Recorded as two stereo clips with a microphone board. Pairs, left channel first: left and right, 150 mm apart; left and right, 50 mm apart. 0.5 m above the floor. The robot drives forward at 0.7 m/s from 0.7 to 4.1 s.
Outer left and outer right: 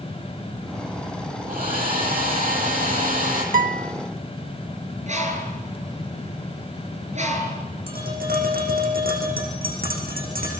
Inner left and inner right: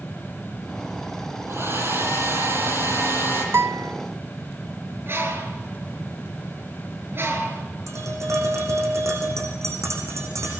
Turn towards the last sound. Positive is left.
turn(degrees=-75)  # may be behind; listen again after turning